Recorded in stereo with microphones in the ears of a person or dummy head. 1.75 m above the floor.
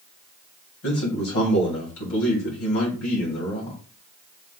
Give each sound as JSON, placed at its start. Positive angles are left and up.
{"t": 0.8, "sound": "a man speaking", "side_deg": 75, "distance_m": 2.5}